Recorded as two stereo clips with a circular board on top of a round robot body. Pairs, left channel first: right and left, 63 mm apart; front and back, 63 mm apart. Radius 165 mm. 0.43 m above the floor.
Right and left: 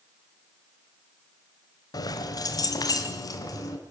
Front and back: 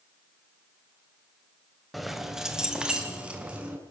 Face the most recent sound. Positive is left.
turn(degrees=-110)